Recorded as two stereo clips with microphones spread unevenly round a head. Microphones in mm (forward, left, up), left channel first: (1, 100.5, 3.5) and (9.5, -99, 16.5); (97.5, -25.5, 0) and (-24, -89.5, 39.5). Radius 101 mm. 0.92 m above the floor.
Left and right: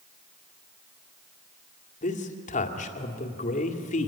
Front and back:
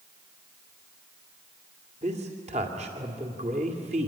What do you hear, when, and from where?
2.0 s a man speaking: 145° left, 2 m